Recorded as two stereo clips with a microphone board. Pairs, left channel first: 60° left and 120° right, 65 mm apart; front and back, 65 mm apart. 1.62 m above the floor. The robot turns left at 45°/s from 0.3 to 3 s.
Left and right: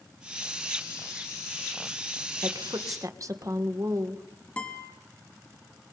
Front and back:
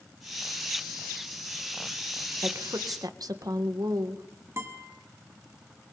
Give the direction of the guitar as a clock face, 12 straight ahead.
8 o'clock.